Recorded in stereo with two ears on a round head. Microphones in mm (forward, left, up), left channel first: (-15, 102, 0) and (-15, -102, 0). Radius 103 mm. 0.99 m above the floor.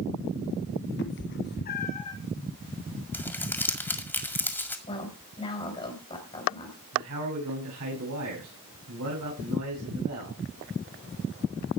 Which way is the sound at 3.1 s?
10° left (ahead or behind).